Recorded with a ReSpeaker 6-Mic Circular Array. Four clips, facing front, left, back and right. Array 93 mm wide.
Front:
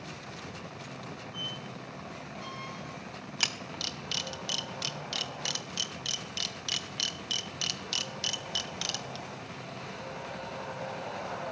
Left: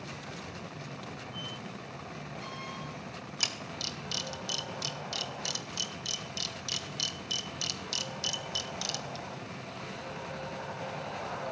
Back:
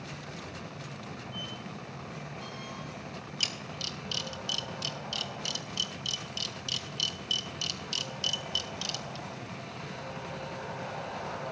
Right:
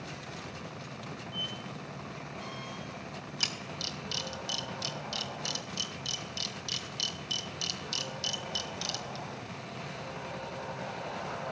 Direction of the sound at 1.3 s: 50° left.